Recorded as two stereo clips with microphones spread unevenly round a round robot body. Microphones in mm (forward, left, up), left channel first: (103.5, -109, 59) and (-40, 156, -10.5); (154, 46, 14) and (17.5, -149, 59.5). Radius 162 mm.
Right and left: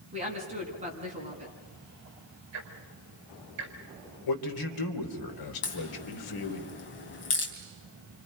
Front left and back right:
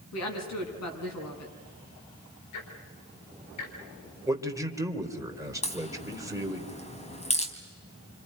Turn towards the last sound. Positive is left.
turn(degrees=-10)